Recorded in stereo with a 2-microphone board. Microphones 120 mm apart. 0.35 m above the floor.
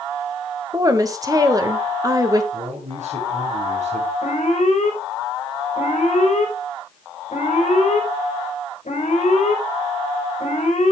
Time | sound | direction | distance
0.7 | a woman speaking | 30° right (ahead or behind) | 1.3 m
2.5 | a man speaking | 80° right | 6.5 m
4.2 | an alarm | 80° left | 5 m